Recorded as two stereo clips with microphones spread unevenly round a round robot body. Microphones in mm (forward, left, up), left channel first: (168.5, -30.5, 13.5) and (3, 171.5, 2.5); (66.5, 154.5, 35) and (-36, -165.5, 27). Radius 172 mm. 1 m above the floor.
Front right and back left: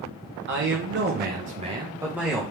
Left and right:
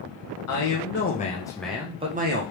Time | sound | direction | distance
0.5 | a man speaking | 105° left | 1.2 m